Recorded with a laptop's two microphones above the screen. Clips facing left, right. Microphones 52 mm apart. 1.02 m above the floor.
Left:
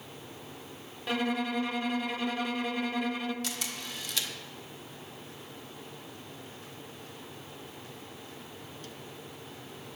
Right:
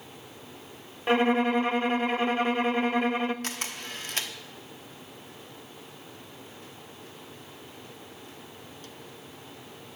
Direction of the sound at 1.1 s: 35° right (ahead or behind).